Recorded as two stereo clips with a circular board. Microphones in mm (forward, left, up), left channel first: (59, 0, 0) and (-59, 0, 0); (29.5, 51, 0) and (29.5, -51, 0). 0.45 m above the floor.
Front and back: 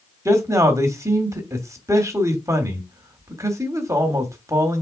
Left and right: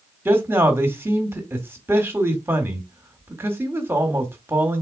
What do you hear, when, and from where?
0.2 s a man speaking: 140° right, 1.1 m